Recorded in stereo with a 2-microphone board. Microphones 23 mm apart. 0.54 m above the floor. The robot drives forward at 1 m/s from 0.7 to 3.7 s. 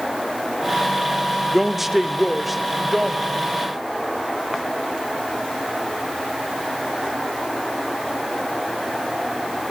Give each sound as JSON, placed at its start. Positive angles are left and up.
{"t": 1.5, "sound": "a man speaking", "side_deg": -15, "distance_m": 0.9}